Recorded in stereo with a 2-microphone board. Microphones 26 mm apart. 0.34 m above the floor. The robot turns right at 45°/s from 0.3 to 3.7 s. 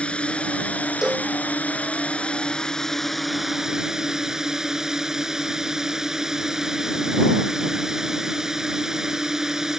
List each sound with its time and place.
0.0 s a drone: 45° left; by 9.8 s 160° right
1.0 s a cowbell: 20° right (ahead or behind); by 1.3 s 30° right (ahead or behind)